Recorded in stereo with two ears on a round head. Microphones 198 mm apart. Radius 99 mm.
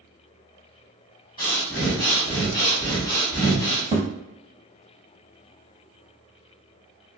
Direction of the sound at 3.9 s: 15° right (ahead or behind).